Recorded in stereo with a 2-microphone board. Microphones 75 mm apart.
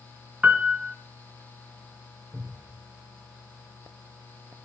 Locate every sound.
0.4 s a piano: 20° right (ahead or behind), 2 m
2.3 s a cupboard door: 55° right (ahead or behind), 5 m